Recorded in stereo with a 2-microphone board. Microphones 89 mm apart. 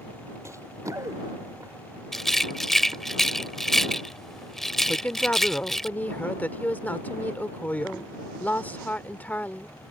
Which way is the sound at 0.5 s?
30° right (ahead or behind).